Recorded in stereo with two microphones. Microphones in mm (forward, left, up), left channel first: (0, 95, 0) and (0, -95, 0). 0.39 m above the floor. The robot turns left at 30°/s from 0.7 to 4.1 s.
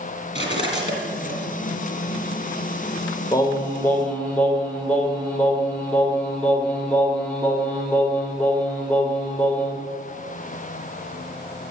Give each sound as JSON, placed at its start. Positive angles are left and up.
{"t": 0.3, "sound": "cutlery clinking", "side_deg": 35, "distance_m": 2.5}
{"t": 3.3, "sound": "singing", "side_deg": 20, "distance_m": 1.6}